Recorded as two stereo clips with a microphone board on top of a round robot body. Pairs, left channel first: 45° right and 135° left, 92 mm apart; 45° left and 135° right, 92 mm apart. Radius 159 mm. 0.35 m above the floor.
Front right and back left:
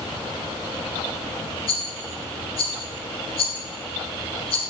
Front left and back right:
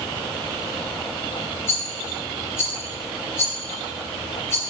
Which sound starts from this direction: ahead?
A rattle, at 1.7 s.